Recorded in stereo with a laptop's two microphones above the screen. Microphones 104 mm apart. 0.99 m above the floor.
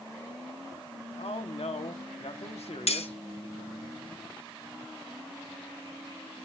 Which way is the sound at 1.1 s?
75° left (ahead or behind).